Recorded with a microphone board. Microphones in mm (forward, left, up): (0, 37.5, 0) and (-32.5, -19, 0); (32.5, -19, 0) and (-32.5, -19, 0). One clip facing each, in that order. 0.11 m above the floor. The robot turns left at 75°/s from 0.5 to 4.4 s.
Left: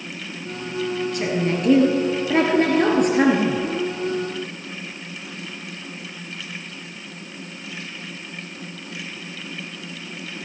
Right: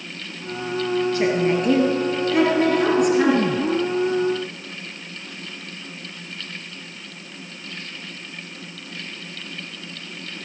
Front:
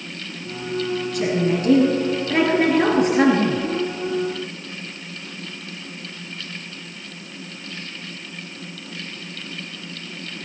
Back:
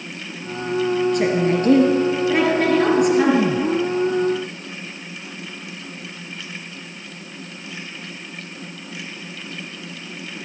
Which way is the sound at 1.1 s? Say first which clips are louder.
Right 3 dB, back 3 dB; 175° right.